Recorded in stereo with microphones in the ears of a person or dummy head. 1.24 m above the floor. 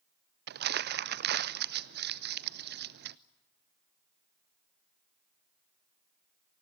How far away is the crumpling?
About 0.5 m.